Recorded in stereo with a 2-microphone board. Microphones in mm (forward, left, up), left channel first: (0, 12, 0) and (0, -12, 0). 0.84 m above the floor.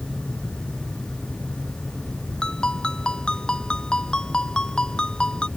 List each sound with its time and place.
2.4 s a ringtone: 40° left (ahead or behind)